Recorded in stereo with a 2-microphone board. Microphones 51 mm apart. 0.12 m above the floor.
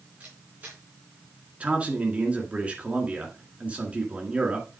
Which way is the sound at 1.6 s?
25° right (ahead or behind).